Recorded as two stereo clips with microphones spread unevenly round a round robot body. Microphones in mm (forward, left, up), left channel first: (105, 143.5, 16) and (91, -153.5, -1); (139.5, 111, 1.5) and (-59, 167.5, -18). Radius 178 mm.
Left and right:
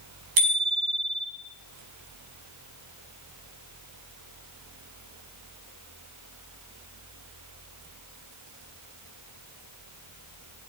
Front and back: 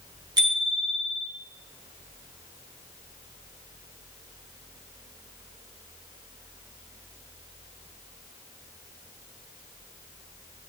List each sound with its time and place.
0.4 s a bicycle bell: 115° right, 4.5 m